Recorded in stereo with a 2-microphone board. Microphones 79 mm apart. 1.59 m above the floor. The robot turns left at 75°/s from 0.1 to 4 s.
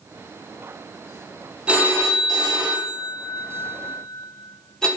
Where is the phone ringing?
10° right (ahead or behind), 0.9 m; by 4.9 s 5° left (ahead or behind), 0.9 m.